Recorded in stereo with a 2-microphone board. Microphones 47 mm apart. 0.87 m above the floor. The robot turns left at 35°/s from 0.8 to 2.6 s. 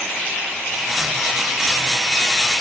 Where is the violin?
No violin in this recording.